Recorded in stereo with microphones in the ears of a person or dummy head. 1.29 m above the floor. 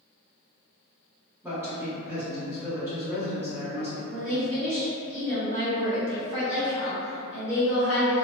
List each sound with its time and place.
1.4 s a man speaking: 15° right (ahead or behind), 1.2 m
4.1 s a woman speaking: 85° right, 1.3 m